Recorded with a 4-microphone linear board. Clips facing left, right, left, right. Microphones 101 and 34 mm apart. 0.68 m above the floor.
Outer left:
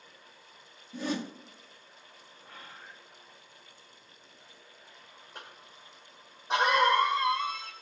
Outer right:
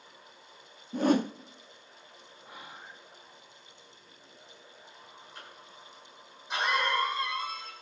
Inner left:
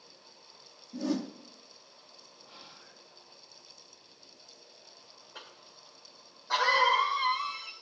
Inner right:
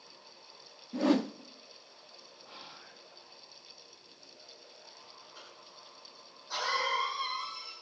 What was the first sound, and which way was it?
A whoosh, 50° right (ahead or behind).